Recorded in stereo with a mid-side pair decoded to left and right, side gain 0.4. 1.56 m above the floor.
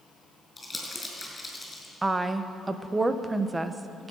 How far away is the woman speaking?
About 1.1 m.